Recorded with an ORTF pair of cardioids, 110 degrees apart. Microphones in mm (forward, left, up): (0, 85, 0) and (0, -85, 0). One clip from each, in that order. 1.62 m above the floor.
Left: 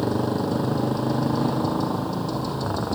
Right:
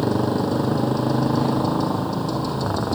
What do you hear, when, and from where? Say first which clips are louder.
0.0 s a motorcycle: right 3 dB; 10° right